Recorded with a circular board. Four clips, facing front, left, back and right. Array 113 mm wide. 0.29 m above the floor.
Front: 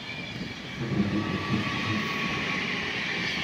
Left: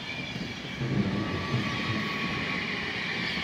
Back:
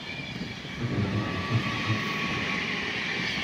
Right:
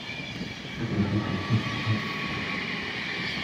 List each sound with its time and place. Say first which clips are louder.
0.7 s laughter: right 2 dB, front 2 dB; 105° right, 2.5 m; by 2.0 s 60° right, 2 m